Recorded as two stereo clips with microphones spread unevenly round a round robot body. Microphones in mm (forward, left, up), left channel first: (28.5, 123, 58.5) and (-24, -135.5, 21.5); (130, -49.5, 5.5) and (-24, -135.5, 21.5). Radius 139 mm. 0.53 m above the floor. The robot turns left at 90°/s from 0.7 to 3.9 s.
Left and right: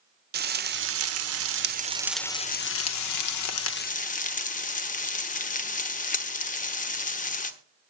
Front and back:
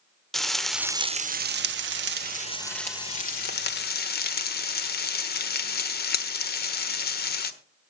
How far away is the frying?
About 1.2 m.